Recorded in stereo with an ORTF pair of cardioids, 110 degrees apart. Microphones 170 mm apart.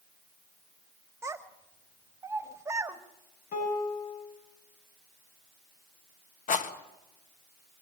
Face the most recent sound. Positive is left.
turn(degrees=50)